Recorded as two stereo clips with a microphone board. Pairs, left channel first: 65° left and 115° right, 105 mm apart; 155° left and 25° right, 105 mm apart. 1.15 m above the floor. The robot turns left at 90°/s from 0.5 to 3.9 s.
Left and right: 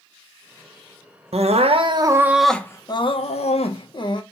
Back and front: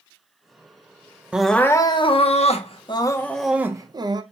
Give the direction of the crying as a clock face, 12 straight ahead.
3 o'clock.